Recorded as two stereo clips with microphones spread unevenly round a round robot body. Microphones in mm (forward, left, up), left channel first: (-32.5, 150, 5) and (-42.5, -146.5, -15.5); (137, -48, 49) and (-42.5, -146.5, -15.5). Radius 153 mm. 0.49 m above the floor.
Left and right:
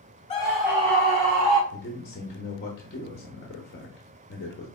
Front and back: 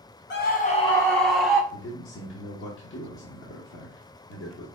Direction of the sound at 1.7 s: 45° left.